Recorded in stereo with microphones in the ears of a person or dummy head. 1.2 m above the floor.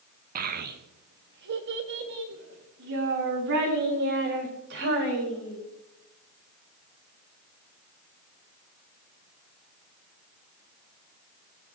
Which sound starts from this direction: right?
A child speaking, at 0.3 s.